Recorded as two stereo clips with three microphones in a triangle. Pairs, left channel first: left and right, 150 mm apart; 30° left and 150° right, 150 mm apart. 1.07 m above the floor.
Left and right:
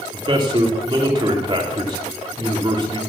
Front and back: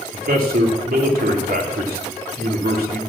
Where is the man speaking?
150° right, 2 m.